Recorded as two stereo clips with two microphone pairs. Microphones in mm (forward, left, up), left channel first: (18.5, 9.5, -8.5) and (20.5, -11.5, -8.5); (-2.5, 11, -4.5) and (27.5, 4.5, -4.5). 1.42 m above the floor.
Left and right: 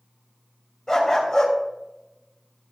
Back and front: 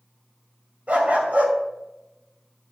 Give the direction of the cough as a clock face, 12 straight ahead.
No cough in this recording.